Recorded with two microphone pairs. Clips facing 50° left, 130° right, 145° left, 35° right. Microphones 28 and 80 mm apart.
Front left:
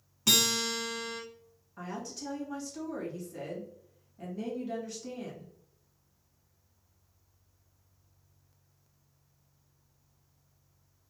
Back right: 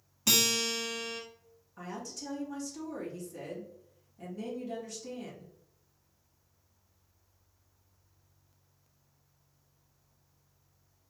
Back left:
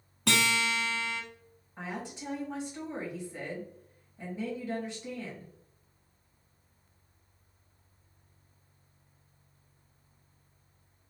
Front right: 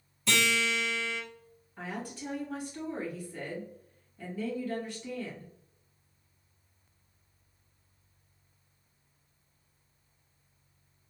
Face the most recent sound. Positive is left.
turn(degrees=105)